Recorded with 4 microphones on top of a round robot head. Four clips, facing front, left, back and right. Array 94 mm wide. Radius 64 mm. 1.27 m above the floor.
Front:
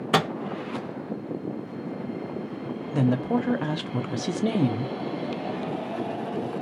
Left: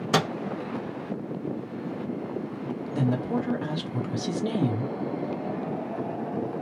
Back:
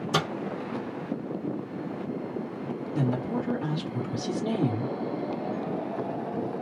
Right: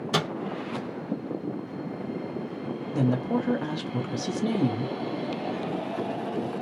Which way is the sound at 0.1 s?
25° left.